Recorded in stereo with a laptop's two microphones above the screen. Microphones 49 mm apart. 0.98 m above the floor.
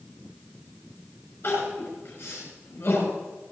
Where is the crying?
50° left (ahead or behind), 6.5 m.